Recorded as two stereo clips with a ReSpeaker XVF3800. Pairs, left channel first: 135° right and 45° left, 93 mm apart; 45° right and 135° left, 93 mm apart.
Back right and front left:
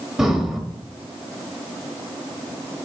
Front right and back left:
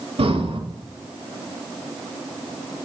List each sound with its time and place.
0.2 s breathing: 130° left, 1.2 m